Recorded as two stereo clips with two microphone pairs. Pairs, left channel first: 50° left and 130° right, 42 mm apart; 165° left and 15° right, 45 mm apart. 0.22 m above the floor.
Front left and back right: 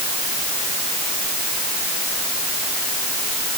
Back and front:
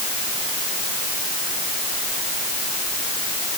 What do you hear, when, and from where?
Only background noise.